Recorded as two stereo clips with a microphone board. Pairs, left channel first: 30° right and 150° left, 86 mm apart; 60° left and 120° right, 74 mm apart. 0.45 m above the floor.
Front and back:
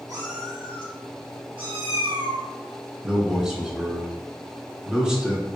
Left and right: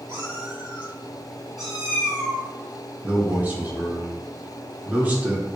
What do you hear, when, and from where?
0.1 s a cat meowing: 170° right, 1.4 m; by 2.4 s 145° left, 2.5 m
3.0 s a man speaking: 145° right, 1.0 m